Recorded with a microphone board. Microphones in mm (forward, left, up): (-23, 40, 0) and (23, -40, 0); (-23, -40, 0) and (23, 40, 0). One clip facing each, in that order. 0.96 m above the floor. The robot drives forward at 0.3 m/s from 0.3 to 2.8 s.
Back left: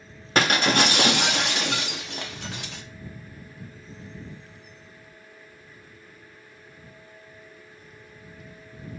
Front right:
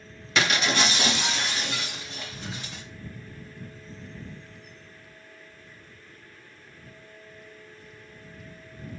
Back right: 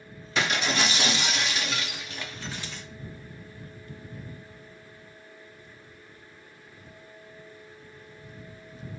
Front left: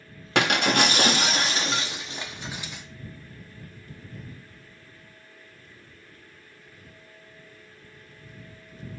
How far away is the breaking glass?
About 0.6 m.